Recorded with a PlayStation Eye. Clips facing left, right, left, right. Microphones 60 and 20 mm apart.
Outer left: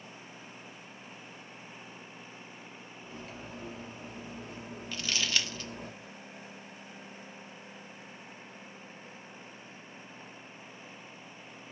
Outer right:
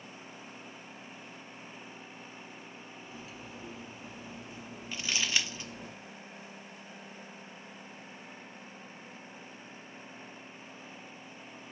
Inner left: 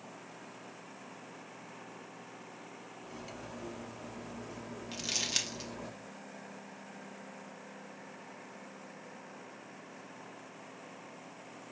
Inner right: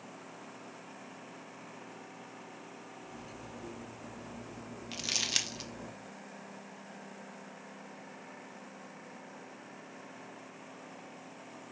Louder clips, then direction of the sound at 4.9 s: Even, inner right 2 dB; 20° right (ahead or behind).